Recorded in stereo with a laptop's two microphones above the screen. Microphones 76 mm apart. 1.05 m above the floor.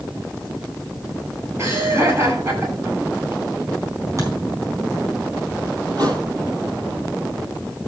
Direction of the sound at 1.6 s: 35° right (ahead or behind).